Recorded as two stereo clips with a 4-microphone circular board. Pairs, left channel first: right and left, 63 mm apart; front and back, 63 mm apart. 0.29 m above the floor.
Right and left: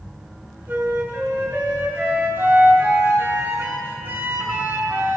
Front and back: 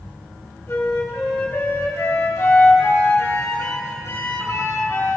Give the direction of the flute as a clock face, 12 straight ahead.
11 o'clock.